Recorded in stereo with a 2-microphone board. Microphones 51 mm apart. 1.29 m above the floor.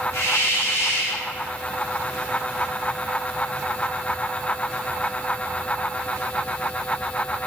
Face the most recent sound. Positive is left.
turn(degrees=70)  # may be behind; listen again after turning